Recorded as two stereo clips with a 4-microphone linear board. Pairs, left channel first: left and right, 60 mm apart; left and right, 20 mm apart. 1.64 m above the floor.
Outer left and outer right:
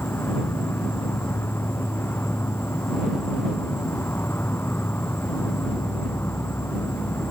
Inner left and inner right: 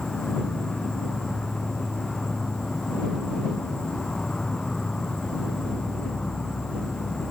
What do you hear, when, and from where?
0.0 s an insect: 40° left (ahead or behind)